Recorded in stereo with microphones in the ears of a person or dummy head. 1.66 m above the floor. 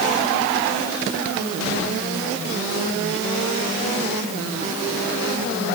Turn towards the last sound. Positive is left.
No sound to turn to.